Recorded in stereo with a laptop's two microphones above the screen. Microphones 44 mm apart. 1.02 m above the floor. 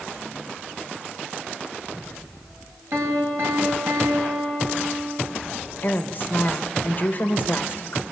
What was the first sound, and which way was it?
A piano, 75° right (ahead or behind).